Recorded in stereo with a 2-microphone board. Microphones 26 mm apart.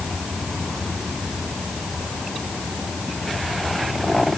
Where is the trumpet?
No trumpet in this recording.